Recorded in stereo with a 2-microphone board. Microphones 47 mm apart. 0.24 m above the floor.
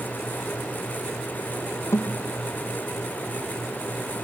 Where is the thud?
75° left (ahead or behind), 3.5 m.